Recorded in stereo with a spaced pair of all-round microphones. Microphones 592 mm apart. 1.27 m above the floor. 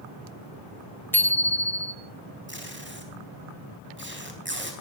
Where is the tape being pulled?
20° right (ahead or behind), 4 m.